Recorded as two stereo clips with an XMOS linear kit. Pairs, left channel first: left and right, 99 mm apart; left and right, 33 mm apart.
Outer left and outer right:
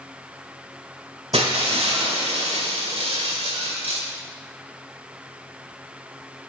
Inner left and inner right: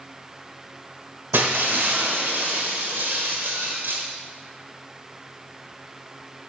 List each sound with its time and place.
1.3 s breaking glass: 80° right, 1.4 m